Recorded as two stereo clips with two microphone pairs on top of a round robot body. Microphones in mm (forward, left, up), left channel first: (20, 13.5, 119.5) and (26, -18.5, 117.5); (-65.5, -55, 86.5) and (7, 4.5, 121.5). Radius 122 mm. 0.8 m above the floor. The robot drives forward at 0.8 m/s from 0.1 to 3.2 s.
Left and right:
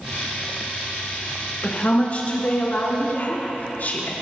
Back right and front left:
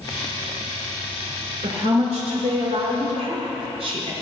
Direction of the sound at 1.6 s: 45° left.